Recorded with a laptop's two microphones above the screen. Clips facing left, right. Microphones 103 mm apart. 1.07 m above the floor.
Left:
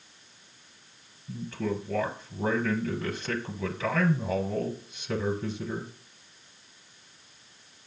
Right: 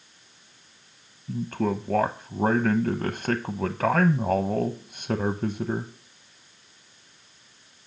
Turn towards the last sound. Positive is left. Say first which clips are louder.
# right 5 dB
turn(degrees=-50)  # may be behind; listen again after turning